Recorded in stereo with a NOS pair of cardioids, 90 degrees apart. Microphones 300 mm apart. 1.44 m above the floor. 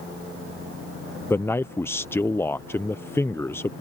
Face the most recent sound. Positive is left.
turn(degrees=10)